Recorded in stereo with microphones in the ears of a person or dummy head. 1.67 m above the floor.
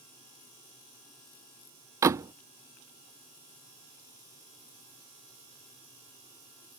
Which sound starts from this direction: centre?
A door slam, at 2.0 s.